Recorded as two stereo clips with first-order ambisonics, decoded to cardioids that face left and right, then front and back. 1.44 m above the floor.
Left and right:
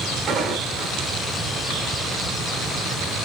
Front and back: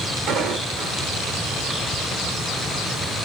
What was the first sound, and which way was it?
Footsteps, 130° right.